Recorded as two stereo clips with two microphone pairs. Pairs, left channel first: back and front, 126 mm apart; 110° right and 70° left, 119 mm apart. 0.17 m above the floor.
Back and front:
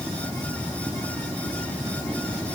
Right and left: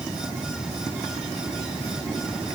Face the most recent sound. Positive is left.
No sound to turn to.